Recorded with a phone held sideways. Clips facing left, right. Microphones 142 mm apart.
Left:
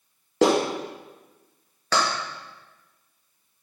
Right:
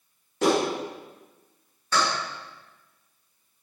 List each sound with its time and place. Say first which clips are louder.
0.4 s a clap: left 3 dB; 85° left, 1.5 m